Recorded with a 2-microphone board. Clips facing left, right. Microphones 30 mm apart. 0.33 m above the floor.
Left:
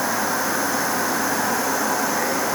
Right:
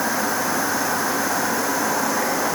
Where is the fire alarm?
I don't hear a fire alarm.